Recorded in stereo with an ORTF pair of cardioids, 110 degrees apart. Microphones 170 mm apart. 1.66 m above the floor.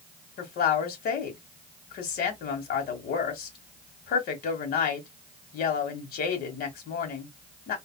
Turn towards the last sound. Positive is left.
turn(degrees=60)